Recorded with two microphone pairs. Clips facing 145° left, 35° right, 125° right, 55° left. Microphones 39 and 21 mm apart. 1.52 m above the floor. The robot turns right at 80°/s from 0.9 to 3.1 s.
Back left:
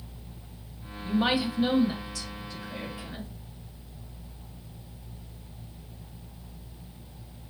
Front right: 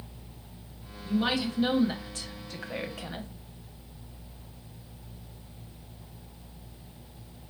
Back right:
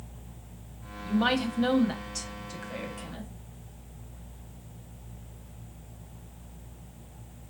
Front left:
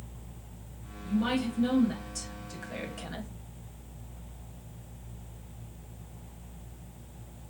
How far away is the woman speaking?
About 0.8 m.